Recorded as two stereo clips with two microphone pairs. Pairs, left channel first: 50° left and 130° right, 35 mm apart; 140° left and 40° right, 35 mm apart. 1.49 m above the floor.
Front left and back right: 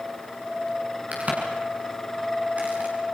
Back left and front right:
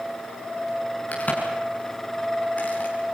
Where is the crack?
175° right, 7 m.